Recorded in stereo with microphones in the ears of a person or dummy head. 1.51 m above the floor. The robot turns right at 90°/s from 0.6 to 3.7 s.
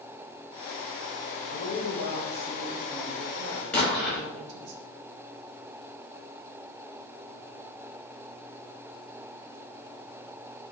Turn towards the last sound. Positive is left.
turn(degrees=5)  # may be behind; listen again after turning